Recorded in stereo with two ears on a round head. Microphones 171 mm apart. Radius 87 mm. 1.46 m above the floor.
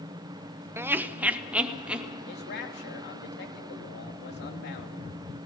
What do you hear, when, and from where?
0.8 s laughter: 10° right (ahead or behind), 0.9 m; by 2.1 s 5° right (ahead or behind), 2.5 m
2.3 s a man speaking: 60° left (ahead or behind), 3 m